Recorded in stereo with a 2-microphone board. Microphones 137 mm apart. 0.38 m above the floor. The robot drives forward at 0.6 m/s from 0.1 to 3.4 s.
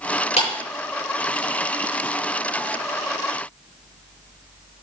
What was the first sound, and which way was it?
A clap, 55° left (ahead or behind).